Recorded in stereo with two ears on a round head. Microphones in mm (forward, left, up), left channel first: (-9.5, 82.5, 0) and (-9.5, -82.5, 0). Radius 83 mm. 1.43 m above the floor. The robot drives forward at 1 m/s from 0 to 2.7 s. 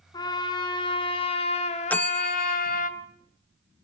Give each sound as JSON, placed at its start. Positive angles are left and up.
{"t": 0.1, "sound": "a trumpet", "side_deg": 20, "distance_m": 3.5}
{"t": 1.9, "sound": "a bell", "side_deg": 10, "distance_m": 0.5}